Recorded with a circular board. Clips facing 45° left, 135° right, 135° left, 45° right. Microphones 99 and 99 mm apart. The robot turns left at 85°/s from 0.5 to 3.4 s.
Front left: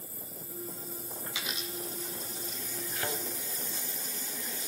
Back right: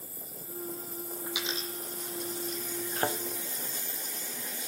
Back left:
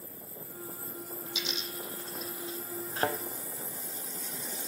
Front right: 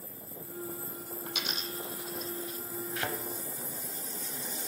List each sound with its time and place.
1.3 s a dropped coin: 55° right, 0.7 m; by 2.6 s 170° right, 0.7 m
3.0 s a thud: 170° right, 0.5 m; by 3.2 s 170° left, 0.5 m